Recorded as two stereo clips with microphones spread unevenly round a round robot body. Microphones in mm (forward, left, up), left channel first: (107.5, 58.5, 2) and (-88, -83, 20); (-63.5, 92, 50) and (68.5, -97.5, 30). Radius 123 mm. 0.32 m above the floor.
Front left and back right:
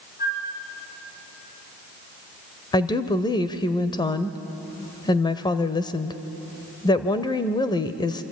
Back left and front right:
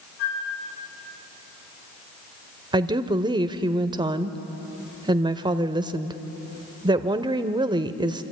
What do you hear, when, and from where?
0.2 s a flute: 95° left, 8.5 m
2.7 s a woman speaking: 15° right, 1.0 m